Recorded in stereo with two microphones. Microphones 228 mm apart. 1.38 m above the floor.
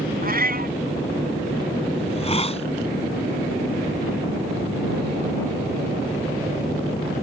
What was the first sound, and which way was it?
A cat meowing, 40° right (ahead or behind).